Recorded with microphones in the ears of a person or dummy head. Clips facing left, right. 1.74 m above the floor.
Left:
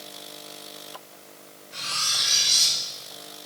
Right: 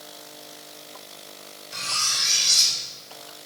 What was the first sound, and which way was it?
Cutlery clinking, 60° right (ahead or behind).